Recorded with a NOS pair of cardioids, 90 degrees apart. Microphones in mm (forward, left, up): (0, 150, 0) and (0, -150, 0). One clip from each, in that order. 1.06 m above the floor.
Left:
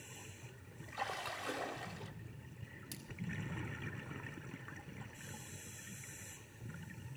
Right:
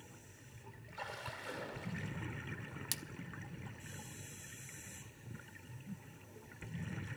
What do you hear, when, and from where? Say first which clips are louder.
0.9 s a splash: left 4 dB; 40° left, 1.9 m
2.9 s a splash: right 11 dB; 65° right, 0.8 m